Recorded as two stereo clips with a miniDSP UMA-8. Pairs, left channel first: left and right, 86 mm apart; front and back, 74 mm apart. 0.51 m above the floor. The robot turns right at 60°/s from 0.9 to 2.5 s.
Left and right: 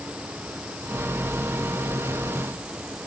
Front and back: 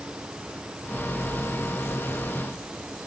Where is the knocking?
No knocking in this recording.